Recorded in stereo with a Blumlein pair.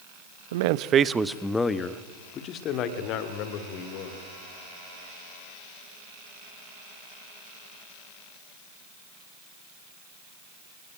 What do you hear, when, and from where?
0.5 s a man speaking: 60° right, 1.1 m; by 4.2 s 45° left, 4 m